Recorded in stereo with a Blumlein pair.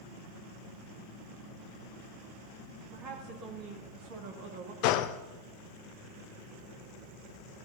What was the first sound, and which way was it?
A woman speaking, 35° right.